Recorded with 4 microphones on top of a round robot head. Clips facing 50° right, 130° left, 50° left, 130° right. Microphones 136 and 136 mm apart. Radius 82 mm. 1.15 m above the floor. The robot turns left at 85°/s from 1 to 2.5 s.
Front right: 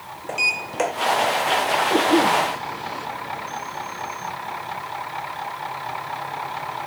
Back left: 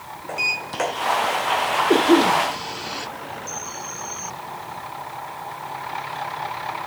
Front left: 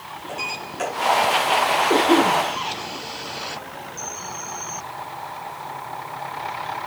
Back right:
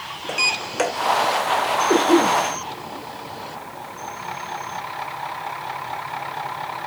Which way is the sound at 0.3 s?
120° right.